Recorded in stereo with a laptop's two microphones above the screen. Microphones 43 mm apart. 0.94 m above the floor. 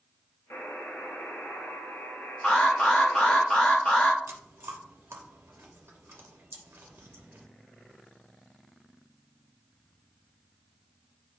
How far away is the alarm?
About 1.4 m.